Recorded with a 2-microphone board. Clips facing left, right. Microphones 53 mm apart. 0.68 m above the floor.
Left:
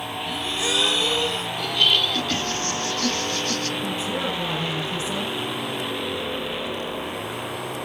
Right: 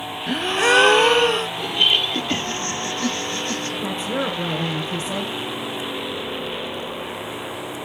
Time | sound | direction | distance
0.3 | a gasp | 50° right (ahead or behind) | 0.5 m
1.6 | laughter | 25° right (ahead or behind) | 1.8 m
3.8 | a woman speaking | 20° right (ahead or behind) | 7 m